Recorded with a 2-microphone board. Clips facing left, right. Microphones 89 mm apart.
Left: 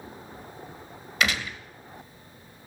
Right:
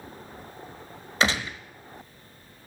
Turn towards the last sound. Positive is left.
turn(degrees=-30)  # may be behind; listen again after turning